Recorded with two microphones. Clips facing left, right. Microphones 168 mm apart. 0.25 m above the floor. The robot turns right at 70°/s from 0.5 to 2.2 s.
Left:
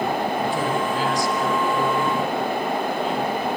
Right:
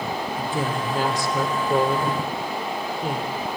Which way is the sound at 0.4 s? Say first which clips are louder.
Left 3 dB; 165° right.